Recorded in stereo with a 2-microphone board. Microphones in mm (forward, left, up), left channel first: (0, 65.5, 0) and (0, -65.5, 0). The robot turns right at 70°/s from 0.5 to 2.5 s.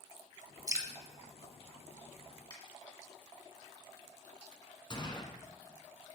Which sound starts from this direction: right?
Dripping, at 0.7 s.